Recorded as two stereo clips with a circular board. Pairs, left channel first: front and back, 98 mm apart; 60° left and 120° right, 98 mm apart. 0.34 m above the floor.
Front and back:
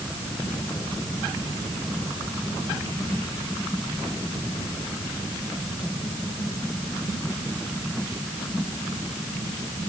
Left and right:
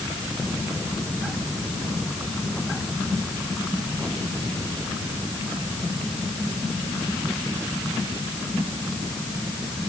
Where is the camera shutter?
No camera shutter in this recording.